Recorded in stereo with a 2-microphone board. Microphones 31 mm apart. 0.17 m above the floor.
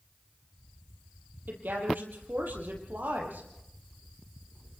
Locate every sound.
1.5 s a woman speaking: 75° right (ahead or behind), 6 m